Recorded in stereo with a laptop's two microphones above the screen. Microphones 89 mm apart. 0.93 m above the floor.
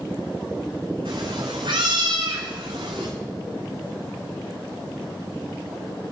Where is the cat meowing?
70° right (ahead or behind), 8 m; by 3.1 s 80° right, 9.5 m.